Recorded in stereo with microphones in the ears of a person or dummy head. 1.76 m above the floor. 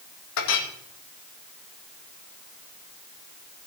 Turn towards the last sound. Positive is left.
turn(degrees=70)  # may be behind; listen again after turning